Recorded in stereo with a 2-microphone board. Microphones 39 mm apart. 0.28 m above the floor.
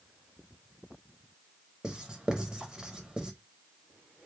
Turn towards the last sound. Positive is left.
turn(degrees=-20)  # may be behind; listen again after turning